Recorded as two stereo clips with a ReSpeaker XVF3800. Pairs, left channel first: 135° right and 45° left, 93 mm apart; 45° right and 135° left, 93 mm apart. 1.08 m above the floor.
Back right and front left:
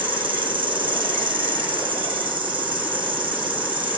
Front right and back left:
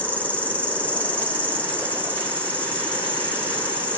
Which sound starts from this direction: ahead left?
An insect, at 0.0 s.